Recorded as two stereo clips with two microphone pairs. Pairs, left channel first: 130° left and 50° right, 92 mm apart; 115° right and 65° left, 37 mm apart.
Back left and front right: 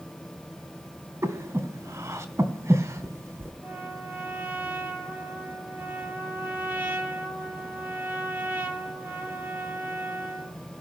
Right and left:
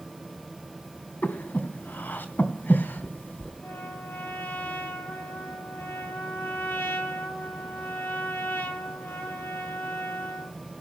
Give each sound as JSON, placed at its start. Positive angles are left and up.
{"t": 1.2, "sound": "breathing", "azimuth_deg": -105, "distance_m": 2.5}
{"t": 3.6, "sound": "a trumpet", "azimuth_deg": -120, "distance_m": 7.5}